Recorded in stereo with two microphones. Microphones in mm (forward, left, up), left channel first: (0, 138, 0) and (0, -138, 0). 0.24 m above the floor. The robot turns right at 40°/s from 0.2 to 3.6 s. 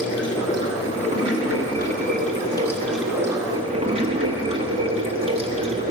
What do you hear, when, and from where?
0.0 s running water: 70° left, 1.2 m; by 5.9 s 155° right, 1.2 m